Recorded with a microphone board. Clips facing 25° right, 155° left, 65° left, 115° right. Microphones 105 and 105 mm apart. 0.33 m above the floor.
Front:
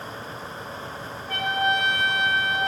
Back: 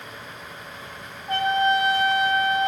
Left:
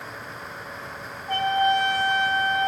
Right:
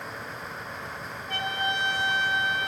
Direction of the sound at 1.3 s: 105° left.